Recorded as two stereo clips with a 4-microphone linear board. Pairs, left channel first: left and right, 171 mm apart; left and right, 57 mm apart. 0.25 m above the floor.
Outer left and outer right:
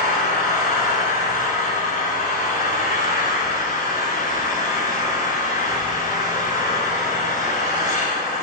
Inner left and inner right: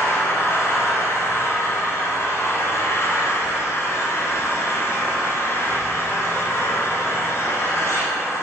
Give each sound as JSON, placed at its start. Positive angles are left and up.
{"t": 0.0, "sound": "an engine running", "side_deg": 55, "distance_m": 1.1}